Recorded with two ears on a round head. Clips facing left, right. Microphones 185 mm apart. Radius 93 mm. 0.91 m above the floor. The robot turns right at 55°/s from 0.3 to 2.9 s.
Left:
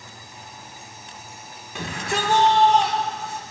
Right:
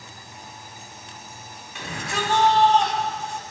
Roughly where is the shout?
Left.